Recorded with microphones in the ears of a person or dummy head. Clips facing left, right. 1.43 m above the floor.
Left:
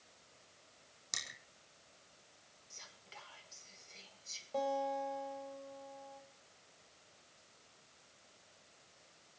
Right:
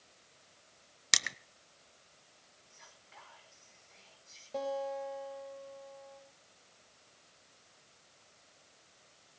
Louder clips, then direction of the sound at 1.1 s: Right 11 dB; 80° right.